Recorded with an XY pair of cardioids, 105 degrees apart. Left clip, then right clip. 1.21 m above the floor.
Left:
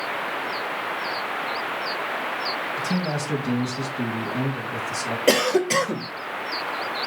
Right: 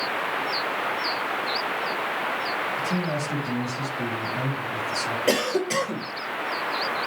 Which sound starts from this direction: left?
A man speaking, at 2.8 s.